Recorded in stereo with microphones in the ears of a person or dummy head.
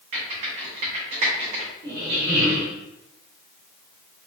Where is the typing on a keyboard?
30° right (ahead or behind), 0.7 m.